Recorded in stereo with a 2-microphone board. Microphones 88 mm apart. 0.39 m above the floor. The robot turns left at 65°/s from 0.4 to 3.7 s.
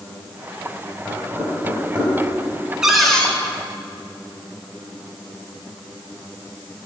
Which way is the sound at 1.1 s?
10° right (ahead or behind).